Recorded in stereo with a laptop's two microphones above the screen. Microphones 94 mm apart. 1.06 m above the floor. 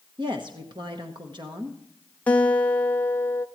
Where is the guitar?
15° left (ahead or behind), 0.7 m.